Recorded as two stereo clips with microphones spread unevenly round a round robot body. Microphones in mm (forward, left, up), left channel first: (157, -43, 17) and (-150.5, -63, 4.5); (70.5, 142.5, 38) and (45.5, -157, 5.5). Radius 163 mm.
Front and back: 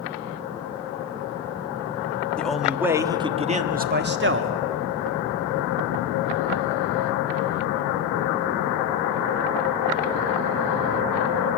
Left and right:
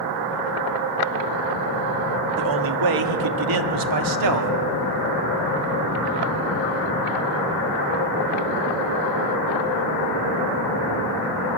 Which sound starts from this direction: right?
A man speaking, at 2.4 s.